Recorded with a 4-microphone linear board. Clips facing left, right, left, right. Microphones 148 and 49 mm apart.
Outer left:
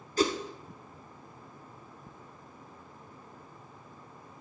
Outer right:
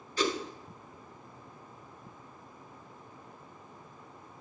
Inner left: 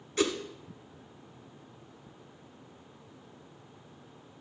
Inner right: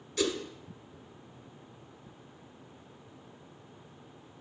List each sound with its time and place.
0.2 s a whoosh: 40° left (ahead or behind), 1.0 m